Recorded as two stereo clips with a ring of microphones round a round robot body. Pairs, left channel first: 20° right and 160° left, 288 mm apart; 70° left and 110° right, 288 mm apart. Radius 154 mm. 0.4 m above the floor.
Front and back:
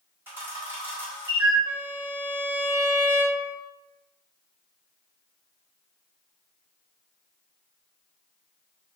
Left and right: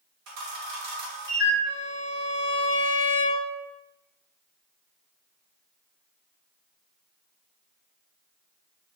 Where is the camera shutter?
120° right, 1.4 m.